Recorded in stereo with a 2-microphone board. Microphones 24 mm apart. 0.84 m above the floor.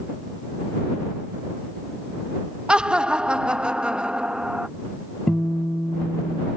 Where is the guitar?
40° left (ahead or behind).